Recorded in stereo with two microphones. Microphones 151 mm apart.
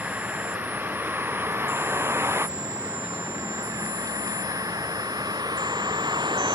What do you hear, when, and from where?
0.0 s a vehicle: 10° right (ahead or behind); by 6.6 s 30° right (ahead or behind)